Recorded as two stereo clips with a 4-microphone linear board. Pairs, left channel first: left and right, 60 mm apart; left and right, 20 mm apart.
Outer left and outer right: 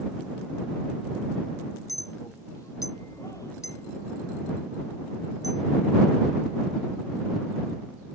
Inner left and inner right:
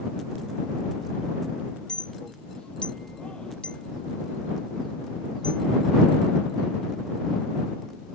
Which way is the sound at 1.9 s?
60° left (ahead or behind).